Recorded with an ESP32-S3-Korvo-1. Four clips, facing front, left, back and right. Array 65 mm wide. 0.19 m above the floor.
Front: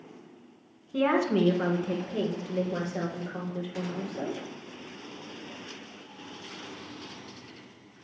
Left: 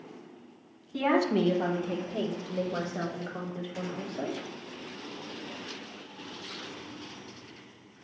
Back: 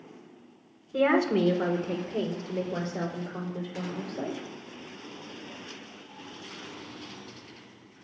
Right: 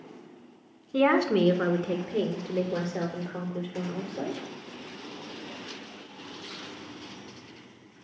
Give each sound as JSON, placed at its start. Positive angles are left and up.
{"t": 0.9, "sound": "a woman speaking", "azimuth_deg": -90, "distance_m": 1.4}